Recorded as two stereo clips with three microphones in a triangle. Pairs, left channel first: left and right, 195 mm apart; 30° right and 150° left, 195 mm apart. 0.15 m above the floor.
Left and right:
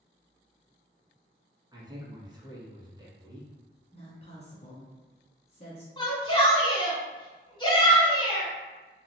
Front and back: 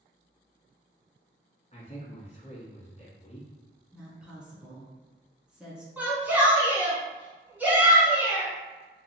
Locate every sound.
1.7 s a man speaking: 40° right, 1.3 m
3.9 s a woman speaking: 70° left, 1.2 m
6.0 s a shout: 85° left, 1.1 m